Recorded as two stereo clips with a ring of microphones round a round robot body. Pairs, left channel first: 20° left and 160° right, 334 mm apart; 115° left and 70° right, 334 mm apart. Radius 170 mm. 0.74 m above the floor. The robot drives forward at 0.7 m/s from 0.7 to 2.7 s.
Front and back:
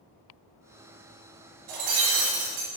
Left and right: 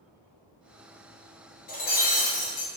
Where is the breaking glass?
175° left, 2.5 m.